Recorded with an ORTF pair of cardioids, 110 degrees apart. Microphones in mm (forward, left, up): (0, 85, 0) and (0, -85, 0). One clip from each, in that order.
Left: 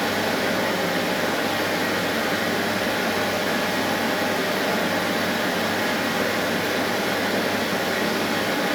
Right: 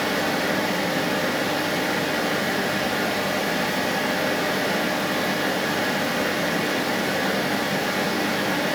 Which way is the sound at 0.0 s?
5° left.